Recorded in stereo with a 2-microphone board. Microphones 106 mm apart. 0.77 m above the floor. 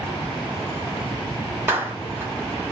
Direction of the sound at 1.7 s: 20° right (ahead or behind).